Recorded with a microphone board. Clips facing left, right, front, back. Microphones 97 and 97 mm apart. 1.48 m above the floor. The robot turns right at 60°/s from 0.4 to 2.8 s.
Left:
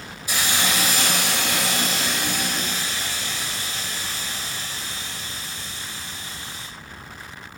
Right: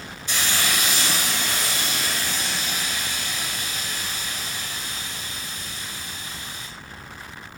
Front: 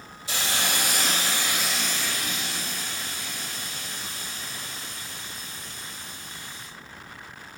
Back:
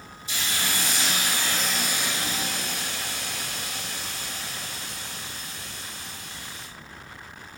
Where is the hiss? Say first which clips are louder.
Left 2 dB, front 2 dB; 5° left, 4.5 m; by 6.7 s 150° left, 4.5 m.